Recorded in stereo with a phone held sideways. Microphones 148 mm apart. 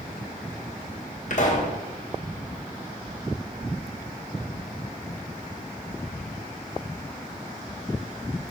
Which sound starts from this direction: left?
A pop, at 1.3 s.